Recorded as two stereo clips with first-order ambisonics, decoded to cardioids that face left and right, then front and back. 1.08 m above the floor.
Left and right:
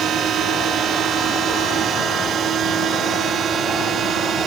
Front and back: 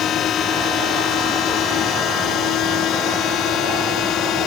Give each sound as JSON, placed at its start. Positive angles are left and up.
{"t": 0.0, "sound": "a drone", "azimuth_deg": -45}